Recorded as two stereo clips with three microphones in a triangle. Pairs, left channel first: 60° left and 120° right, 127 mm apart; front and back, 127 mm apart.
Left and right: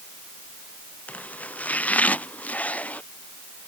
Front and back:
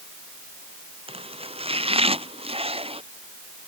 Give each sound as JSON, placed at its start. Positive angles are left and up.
{"t": 1.1, "sound": "chopping", "azimuth_deg": 140}